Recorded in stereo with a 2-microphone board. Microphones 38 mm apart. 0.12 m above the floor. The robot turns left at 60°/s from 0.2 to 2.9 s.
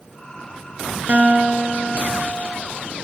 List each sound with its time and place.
1.1 s a guitar: 70° right, 0.6 m; by 2.5 s 160° right, 0.6 m